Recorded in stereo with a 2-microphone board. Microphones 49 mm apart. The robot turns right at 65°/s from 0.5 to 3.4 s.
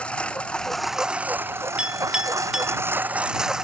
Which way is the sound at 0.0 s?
155° left.